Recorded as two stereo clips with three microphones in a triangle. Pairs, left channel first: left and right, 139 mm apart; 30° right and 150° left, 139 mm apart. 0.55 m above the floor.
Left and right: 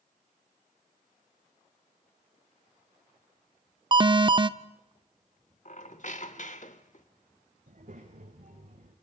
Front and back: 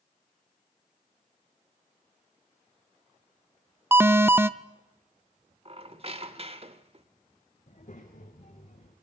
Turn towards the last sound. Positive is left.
turn(degrees=-65)